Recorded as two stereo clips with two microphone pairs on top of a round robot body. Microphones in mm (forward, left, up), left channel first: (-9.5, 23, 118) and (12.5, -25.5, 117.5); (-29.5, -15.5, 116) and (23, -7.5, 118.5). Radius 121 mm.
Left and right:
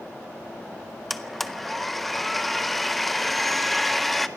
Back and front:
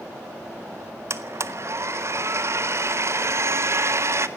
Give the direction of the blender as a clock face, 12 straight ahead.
11 o'clock.